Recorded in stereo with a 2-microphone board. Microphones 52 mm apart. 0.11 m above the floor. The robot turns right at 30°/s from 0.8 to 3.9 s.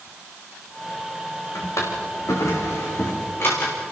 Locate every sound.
1.6 s a drawer: 75° left (ahead or behind), 5 m; by 3.7 s 40° left (ahead or behind), 5 m